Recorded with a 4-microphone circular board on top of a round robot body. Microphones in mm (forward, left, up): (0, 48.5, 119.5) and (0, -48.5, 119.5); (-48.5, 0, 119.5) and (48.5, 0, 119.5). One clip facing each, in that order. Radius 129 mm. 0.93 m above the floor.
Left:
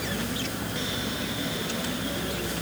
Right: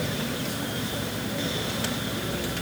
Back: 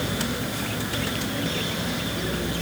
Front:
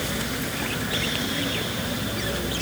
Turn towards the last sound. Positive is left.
No sound to turn to.